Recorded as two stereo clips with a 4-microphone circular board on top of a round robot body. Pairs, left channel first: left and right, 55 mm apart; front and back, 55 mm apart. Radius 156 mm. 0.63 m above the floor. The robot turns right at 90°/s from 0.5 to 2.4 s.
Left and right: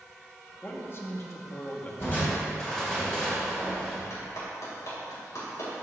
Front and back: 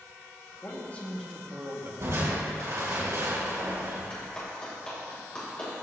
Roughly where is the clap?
Left.